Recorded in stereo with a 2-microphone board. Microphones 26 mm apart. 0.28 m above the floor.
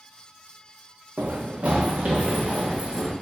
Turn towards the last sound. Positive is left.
turn(degrees=-45)  # may be behind; listen again after turning